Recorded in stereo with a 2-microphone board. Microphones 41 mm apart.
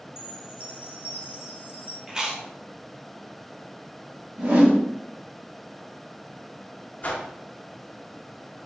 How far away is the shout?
I don't hear a shout.